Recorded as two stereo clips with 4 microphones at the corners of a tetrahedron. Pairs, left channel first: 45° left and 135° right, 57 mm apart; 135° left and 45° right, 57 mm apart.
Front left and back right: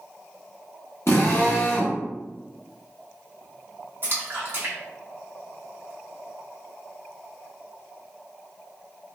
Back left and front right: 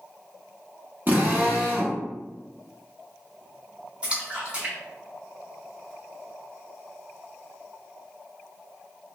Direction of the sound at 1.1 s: 5° left.